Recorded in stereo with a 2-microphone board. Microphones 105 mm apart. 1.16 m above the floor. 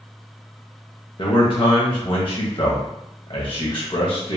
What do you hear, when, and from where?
1.2 s a man speaking: 55° left (ahead or behind), 1.0 m